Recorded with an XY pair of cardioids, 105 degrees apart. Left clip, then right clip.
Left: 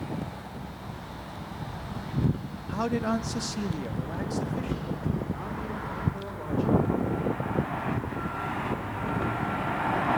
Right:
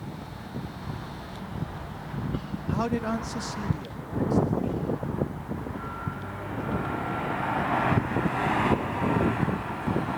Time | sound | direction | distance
2.7 | a man speaking | 10° right | 0.9 m